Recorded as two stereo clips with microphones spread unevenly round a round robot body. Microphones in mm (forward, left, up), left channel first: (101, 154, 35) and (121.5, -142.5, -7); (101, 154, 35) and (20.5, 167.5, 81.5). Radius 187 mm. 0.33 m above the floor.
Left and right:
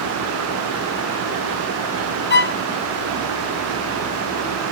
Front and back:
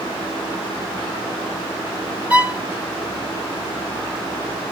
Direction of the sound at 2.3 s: 55° left.